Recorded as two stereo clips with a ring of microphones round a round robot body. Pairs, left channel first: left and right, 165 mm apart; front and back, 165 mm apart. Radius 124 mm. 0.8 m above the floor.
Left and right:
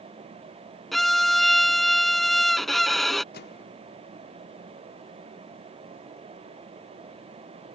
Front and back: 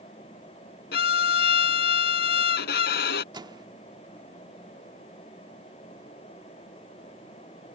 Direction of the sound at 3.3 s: 115° left.